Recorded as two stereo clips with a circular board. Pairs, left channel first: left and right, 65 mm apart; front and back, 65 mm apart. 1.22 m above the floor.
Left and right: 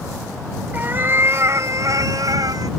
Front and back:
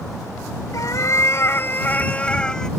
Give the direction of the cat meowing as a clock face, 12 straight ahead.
1 o'clock.